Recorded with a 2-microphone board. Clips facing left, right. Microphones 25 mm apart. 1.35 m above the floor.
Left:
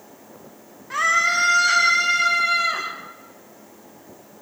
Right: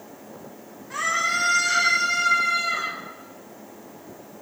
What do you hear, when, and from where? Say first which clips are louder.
0.9 s a scream: left 5 dB; 25° left (ahead or behind), 2.5 m; by 2.9 s 50° left (ahead or behind), 4.5 m